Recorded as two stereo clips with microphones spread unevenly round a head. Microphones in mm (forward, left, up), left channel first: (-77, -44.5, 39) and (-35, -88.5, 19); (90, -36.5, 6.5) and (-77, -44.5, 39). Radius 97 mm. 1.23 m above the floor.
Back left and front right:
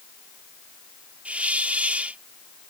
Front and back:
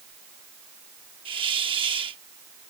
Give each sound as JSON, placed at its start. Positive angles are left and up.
{"t": 1.2, "sound": "a hiss", "azimuth_deg": -120}